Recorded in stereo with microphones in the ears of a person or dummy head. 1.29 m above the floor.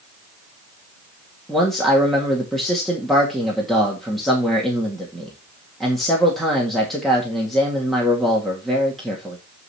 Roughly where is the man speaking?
Centre.